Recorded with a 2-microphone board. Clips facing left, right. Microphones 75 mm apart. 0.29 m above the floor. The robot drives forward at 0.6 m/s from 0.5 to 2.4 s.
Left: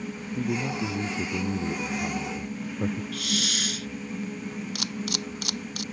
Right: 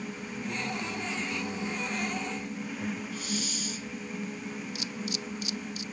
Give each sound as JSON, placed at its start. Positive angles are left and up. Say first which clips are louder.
{"t": 0.3, "sound": "a man speaking", "louder": "left 7 dB", "side_deg": 60}
{"t": 3.1, "sound": "a hiss", "louder": "left 4 dB", "side_deg": 75}
{"t": 4.8, "sound": "a camera shutter", "louder": "left 4 dB", "side_deg": 65}